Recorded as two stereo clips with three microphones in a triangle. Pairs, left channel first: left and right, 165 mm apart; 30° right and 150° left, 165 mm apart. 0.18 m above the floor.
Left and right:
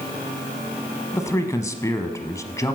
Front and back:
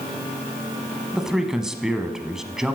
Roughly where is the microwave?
I don't hear a microwave.